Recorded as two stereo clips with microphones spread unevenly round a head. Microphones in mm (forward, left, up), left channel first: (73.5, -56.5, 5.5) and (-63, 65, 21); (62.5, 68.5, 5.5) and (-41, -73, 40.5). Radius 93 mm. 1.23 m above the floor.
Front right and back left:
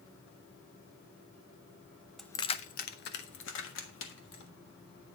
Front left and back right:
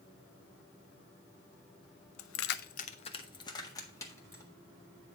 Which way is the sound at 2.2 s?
50° left.